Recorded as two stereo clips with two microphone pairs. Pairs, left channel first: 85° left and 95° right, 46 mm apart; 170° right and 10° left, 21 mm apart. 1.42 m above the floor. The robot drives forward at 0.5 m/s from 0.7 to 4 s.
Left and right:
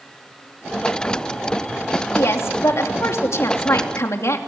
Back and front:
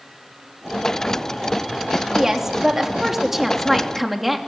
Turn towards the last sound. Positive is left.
turn(degrees=90)